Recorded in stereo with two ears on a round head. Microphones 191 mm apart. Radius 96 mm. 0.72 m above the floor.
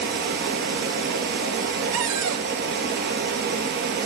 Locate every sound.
0.0 s running water: 50° right (ahead or behind), 4.5 m
1.9 s a cupboard door: 70° right (ahead or behind), 1.1 m